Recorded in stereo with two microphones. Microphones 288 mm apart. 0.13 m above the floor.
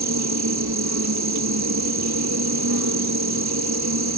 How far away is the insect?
About 0.8 m.